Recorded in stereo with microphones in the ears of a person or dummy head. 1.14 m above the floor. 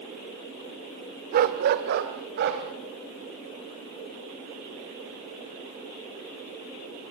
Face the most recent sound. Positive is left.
turn(degrees=-60)  # may be behind; listen again after turning